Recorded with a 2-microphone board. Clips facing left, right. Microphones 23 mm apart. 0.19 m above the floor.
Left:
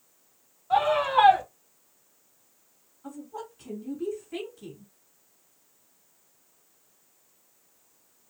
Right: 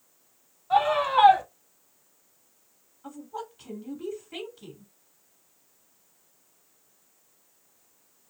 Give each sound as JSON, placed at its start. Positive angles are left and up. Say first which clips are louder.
{"t": 0.7, "sound": "a scream", "louder": "even", "side_deg": -10, "distance_m": 1.9}
{"t": 3.0, "sound": "a woman speaking", "louder": "right 1 dB", "side_deg": -30, "distance_m": 1.3}